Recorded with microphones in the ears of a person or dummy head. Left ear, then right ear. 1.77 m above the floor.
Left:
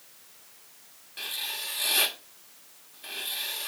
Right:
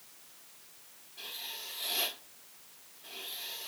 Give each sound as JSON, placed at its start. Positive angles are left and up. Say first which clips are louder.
{"t": 1.2, "sound": "writing", "louder": "left 8 dB", "side_deg": 55, "distance_m": 1.5}